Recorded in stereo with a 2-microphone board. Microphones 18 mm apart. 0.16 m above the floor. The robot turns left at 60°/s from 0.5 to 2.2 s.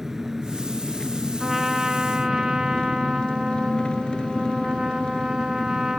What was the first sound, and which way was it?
An engine running, 155° right.